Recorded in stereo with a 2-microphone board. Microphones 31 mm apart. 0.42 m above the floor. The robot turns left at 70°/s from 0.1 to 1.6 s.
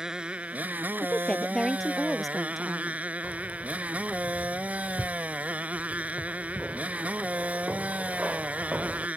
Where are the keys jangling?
50° right (ahead or behind).